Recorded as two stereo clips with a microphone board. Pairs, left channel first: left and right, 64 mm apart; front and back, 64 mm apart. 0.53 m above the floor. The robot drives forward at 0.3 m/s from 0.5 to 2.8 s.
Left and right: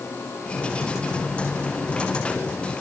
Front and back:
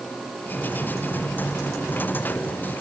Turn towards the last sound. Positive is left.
No sound to turn to.